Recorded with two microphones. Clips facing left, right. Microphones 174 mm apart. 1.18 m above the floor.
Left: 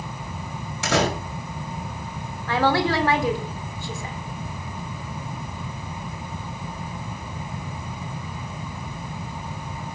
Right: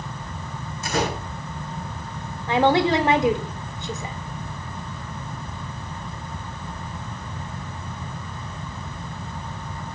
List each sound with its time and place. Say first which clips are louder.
0.8 s a door slam: left 3 dB; 90° left, 5.5 m
2.5 s a woman speaking: right 3 dB; 20° right (ahead or behind), 4 m